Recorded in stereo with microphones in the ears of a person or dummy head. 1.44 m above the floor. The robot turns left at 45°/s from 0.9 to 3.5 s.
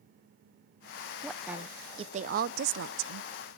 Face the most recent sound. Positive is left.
turn(degrees=-95)